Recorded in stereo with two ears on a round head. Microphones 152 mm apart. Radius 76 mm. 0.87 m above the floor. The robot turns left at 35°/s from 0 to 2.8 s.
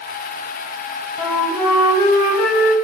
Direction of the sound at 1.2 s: 175° right.